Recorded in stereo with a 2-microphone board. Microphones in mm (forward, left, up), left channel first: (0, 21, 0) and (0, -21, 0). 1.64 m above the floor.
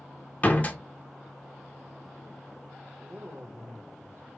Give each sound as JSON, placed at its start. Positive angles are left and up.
{"t": 0.4, "sound": "a door slam", "side_deg": 35, "distance_m": 0.7}
{"t": 3.0, "sound": "a woman speaking", "side_deg": -80, "distance_m": 1.6}